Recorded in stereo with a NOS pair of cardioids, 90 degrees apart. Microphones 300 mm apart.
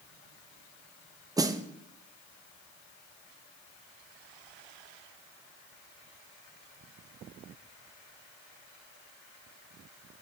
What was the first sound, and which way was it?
A snare drum, 10° right.